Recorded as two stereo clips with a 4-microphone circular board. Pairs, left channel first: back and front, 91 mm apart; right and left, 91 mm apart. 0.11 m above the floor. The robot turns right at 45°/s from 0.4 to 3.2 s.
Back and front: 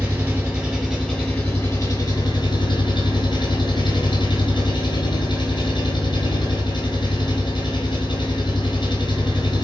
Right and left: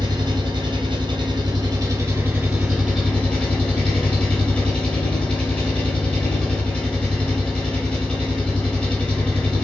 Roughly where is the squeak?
No squeak in this recording.